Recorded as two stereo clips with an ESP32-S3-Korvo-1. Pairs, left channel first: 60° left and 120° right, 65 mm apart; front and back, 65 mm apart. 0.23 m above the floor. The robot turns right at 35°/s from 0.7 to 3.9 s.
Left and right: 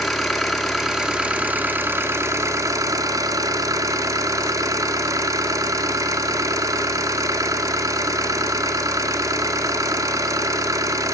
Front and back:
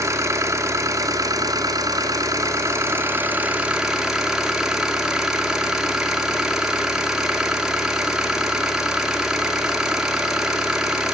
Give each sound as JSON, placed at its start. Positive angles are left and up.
{"t": 0.0, "sound": "an engine running", "azimuth_deg": 150, "distance_m": 1.8}